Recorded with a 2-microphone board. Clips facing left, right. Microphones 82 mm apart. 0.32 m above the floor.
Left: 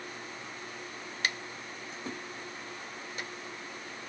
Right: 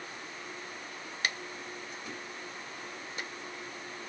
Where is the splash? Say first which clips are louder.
Left 2 dB; 30° left (ahead or behind), 1.4 m.